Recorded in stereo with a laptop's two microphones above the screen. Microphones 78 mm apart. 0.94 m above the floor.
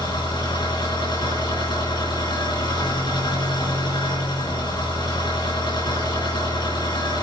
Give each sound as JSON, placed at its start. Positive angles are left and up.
{"t": 0.0, "sound": "an engine running", "side_deg": 80, "distance_m": 7.5}